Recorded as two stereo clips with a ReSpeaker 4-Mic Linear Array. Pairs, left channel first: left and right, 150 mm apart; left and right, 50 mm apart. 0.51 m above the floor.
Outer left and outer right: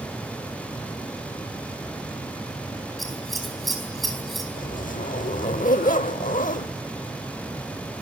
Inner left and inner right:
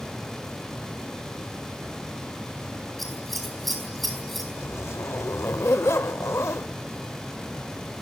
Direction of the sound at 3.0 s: Centre (ahead or behind).